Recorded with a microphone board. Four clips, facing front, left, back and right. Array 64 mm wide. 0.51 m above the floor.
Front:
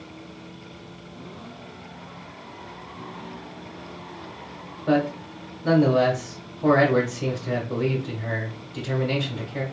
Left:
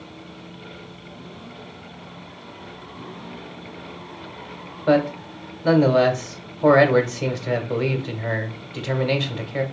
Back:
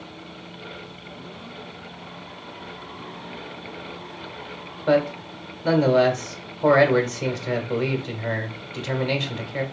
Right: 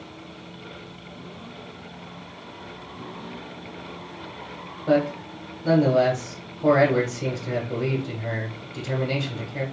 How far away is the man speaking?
About 1.1 m.